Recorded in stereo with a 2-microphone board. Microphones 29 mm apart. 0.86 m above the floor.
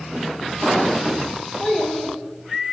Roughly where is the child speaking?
Centre.